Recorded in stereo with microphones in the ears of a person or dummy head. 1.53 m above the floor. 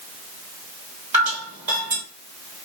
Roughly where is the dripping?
Right.